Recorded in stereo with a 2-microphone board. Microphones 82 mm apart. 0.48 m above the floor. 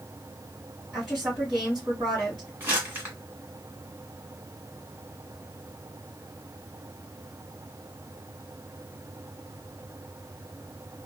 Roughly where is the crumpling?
Right.